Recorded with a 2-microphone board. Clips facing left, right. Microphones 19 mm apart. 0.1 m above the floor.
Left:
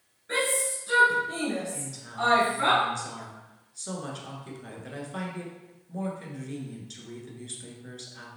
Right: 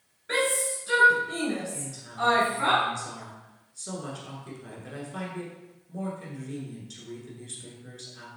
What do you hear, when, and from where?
0.3 s a shout: 25° right (ahead or behind), 1.8 m; by 2.7 s 20° left (ahead or behind), 1.7 m
1.7 s a woman speaking: 15° left (ahead or behind), 1.1 m